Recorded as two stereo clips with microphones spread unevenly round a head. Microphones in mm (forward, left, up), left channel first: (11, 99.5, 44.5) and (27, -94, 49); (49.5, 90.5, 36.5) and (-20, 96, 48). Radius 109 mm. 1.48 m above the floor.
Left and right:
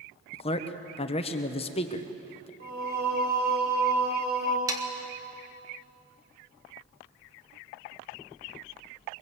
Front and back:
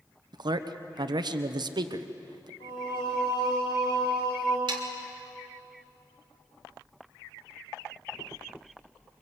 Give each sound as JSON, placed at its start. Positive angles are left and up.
{"t": 0.3, "sound": "a man speaking", "azimuth_deg": 160, "distance_m": 1.0}
{"t": 2.6, "sound": "singing", "azimuth_deg": -45, "distance_m": 5.5}
{"t": 4.7, "sound": "sawing", "azimuth_deg": -160, "distance_m": 1.6}